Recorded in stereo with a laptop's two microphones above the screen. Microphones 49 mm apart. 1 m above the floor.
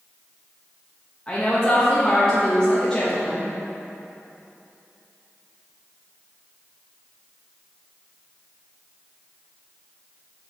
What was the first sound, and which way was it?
A woman speaking, 15° left (ahead or behind).